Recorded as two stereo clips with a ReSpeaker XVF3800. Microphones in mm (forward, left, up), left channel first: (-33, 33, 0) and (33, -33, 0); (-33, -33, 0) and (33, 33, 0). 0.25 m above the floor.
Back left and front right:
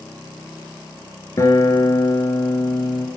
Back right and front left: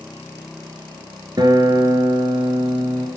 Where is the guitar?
80° left, 1.1 m.